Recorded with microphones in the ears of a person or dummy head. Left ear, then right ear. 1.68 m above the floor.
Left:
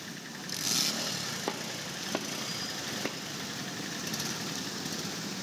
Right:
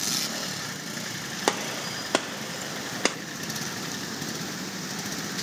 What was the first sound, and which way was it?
A gunshot, 85° right.